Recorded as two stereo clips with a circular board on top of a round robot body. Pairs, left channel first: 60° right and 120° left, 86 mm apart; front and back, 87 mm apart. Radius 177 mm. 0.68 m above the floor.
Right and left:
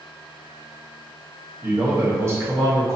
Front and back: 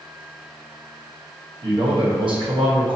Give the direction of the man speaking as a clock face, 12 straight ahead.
6 o'clock.